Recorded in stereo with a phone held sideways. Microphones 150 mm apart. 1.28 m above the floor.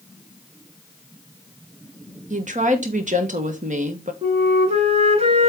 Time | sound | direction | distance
2.3 | a woman speaking | 55° right (ahead or behind) | 1.4 m
4.2 | a flute | 45° right (ahead or behind) | 2 m